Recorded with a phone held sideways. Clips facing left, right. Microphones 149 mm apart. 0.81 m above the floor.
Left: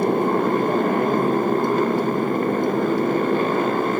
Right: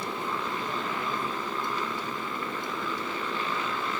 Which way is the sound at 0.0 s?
55° left (ahead or behind).